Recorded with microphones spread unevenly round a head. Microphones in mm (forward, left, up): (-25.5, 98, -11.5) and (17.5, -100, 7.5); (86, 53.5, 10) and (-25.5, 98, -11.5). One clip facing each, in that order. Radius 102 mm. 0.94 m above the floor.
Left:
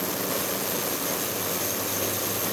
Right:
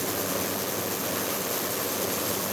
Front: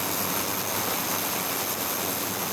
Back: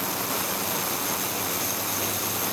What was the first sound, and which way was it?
Only background noise.